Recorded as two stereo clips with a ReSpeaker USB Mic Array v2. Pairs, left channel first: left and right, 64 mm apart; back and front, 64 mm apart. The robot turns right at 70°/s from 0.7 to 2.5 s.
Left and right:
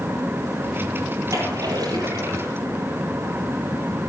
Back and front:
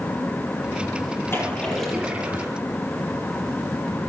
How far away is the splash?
About 9.5 m.